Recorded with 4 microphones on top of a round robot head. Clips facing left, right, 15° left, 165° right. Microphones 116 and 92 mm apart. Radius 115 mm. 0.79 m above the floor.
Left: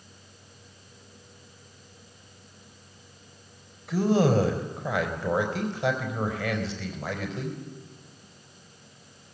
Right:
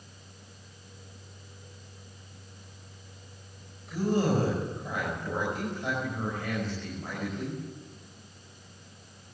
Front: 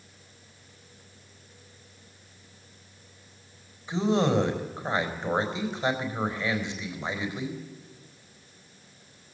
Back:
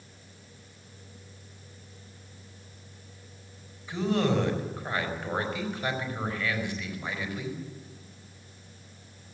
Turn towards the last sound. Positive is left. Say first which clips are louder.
# left 5 dB, front 2 dB
turn(degrees=80)